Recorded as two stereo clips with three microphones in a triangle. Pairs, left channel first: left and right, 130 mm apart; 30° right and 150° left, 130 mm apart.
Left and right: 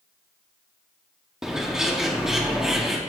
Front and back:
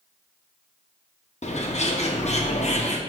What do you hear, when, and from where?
1.4 s a bird: 5° right, 0.7 m